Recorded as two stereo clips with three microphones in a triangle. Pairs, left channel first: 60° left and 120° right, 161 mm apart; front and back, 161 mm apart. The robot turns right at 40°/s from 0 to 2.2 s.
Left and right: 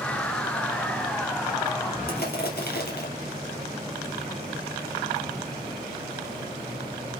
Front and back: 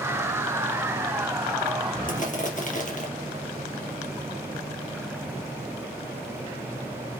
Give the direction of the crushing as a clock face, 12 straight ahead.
11 o'clock.